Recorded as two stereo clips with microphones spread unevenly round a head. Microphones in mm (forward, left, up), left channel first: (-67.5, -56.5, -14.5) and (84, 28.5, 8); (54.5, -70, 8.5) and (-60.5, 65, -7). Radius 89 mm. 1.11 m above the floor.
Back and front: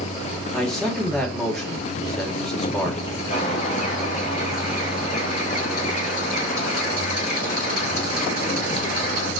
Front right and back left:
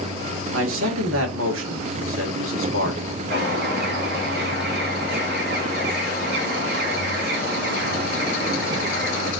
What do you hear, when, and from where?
0.5 s a man speaking: 120° left, 2 m
3.3 s a bird: 160° left, 3.5 m